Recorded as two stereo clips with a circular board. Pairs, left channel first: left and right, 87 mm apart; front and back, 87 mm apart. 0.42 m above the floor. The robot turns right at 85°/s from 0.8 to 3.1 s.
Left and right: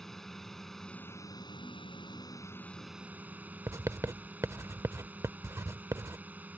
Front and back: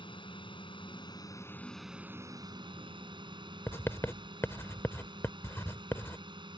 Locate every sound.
0.0 s a drone: 5° left; by 6.6 s 160° right
3.7 s writing: 50° right